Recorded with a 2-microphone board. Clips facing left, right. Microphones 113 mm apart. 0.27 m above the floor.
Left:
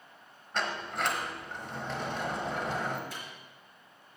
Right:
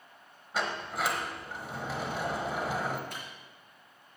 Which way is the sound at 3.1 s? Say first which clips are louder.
Even; 60° right (ahead or behind).